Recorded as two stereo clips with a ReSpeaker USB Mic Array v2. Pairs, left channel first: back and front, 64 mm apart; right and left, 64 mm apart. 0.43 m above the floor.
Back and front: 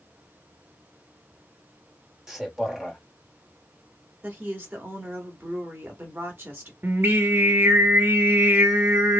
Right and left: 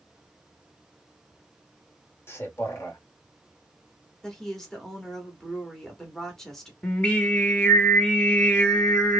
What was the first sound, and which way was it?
A man speaking, 75° right.